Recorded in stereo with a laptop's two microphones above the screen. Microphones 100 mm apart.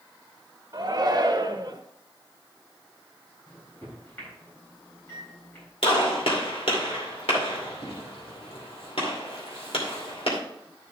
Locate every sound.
0.7 s a shout: 45° right (ahead or behind), 1.1 m
3.5 s a microwave: 25° left (ahead or behind), 4 m
5.8 s a gunshot: 80° left, 2.5 m